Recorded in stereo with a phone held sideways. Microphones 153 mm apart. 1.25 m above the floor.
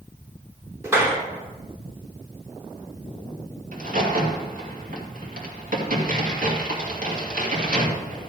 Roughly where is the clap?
Centre.